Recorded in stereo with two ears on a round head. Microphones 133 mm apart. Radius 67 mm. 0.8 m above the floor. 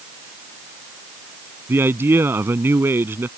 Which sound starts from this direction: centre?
A man speaking, at 1.7 s.